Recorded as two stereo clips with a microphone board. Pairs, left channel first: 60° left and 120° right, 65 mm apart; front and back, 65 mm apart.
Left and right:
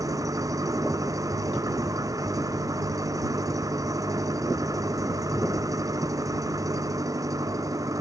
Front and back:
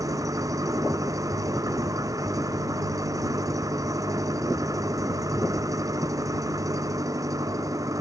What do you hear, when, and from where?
0.0 s an engine running: 150° right